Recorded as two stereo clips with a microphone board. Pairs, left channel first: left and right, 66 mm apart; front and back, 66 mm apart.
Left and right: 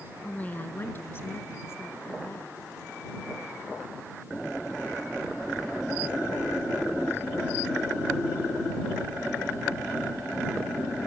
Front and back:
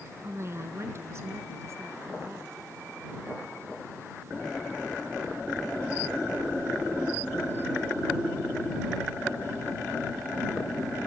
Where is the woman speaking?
150° left; by 2.6 s 135° left.